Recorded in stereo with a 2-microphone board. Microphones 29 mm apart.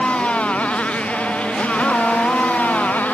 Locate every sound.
0.0 s a motorcycle: 45° left (ahead or behind); by 3.1 s 65° left (ahead or behind)